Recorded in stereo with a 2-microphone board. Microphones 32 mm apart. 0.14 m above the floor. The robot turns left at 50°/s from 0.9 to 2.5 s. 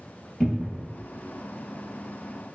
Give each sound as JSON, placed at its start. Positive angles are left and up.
{"t": 0.4, "sound": "a cupboard door", "side_deg": -10, "distance_m": 0.8}